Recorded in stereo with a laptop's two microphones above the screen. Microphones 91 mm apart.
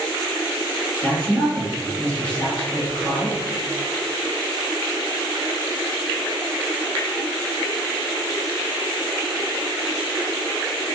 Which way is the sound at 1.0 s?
20° left (ahead or behind).